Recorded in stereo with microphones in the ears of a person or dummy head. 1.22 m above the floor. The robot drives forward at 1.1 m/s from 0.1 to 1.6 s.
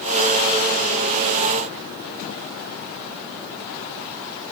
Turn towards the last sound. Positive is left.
No sound to turn to.